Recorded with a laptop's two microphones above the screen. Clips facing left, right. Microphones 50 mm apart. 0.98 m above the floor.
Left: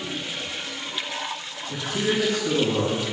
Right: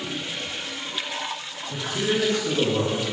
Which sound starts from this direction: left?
A man speaking, at 1.7 s.